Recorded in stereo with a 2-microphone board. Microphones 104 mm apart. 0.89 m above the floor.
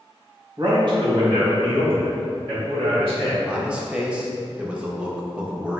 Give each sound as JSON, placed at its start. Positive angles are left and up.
{"t": 0.6, "sound": "a man speaking", "side_deg": -45, "distance_m": 0.8}
{"t": 3.5, "sound": "a man speaking", "side_deg": -10, "distance_m": 0.6}